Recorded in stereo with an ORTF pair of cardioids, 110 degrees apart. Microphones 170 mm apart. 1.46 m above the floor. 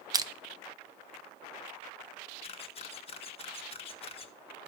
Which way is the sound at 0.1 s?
20° right.